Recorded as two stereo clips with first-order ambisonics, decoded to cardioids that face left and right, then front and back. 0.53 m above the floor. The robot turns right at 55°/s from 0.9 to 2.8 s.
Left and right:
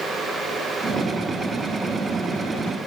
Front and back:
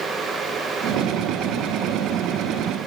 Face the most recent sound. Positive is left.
No sound to turn to.